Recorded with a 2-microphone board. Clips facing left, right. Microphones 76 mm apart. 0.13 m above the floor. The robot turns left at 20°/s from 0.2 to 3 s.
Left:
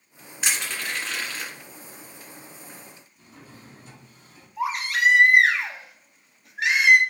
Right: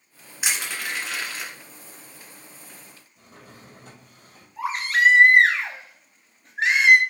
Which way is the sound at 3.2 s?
70° right (ahead or behind).